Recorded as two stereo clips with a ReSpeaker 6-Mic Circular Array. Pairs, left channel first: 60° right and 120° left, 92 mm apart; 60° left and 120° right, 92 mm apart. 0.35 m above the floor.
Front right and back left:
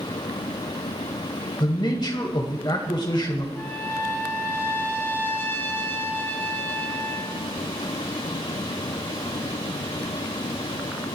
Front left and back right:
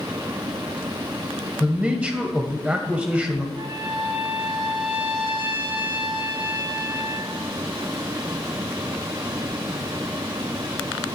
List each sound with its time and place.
1.6 s a man speaking: 45° right, 1.7 m
3.5 s a trumpet: 125° right, 2.5 m